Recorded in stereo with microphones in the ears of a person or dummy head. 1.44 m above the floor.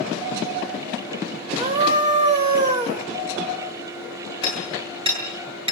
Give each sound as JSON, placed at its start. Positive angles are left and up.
{"t": 1.6, "sound": "a scream", "side_deg": -35, "distance_m": 3.0}
{"t": 4.4, "sound": "hammering", "side_deg": -25, "distance_m": 9.5}